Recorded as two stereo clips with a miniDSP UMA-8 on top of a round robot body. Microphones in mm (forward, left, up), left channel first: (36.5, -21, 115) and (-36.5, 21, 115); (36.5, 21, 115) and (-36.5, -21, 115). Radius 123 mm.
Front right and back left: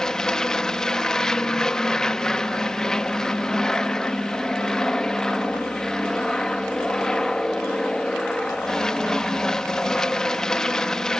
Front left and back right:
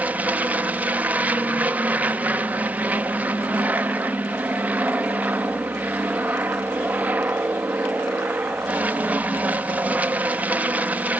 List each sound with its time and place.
0.0 s an aircraft: 105° right